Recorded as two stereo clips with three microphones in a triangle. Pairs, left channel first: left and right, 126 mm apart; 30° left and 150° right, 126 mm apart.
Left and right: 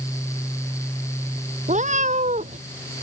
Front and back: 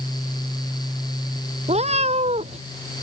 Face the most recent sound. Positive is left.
turn(degrees=-115)